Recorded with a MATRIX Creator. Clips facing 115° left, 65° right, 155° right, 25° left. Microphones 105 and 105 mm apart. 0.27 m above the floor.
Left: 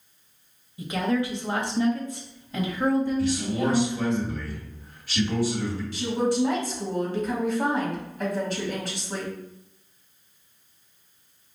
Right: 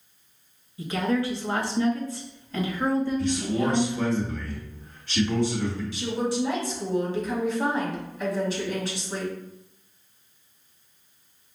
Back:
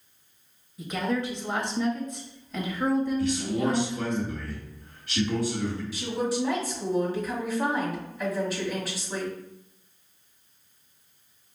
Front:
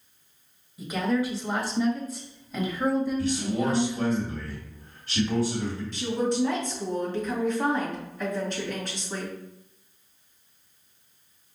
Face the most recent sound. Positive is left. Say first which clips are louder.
# left 5 dB, front 4 dB
turn(degrees=120)